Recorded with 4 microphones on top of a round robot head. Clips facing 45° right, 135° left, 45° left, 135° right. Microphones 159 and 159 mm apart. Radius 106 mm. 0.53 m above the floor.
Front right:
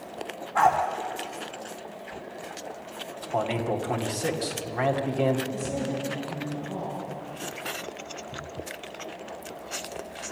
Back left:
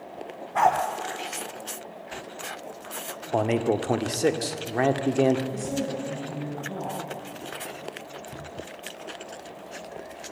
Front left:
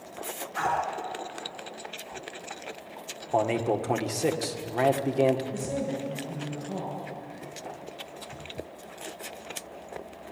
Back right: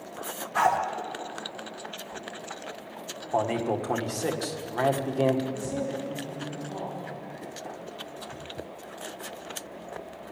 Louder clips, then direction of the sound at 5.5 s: Back left 1 dB, even; 95° left.